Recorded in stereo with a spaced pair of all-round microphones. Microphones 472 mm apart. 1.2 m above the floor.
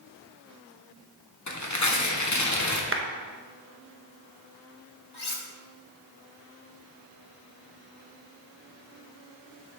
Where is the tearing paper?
40° left (ahead or behind), 0.9 m.